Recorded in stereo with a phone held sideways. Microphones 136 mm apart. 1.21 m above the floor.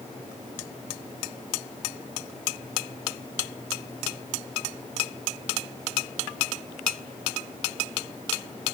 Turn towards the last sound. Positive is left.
No sound to turn to.